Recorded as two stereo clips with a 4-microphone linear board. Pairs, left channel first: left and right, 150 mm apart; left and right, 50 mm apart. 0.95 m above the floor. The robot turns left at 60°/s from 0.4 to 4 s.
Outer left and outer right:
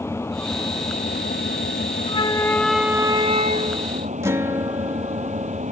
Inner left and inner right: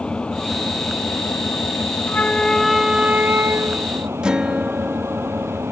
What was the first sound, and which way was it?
An engine running, 165° left.